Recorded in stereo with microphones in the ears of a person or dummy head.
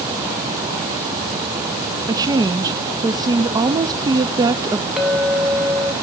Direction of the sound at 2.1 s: 20° right (ahead or behind).